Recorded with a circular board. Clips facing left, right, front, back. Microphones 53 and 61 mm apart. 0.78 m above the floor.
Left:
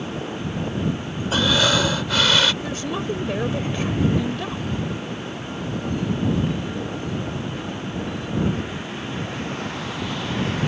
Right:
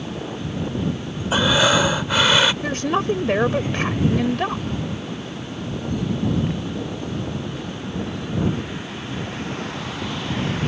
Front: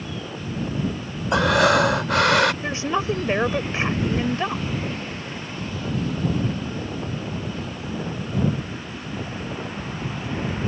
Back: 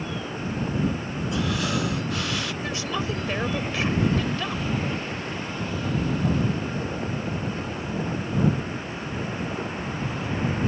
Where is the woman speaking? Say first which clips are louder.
Right 5 dB, front 5 dB; 60° right.